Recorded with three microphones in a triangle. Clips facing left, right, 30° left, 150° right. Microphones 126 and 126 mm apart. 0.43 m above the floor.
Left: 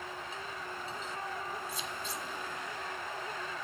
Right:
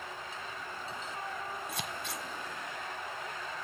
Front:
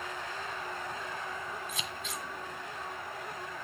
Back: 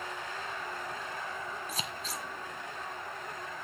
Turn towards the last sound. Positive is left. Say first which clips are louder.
# right 1 dB, back 1 dB
turn(degrees=-100)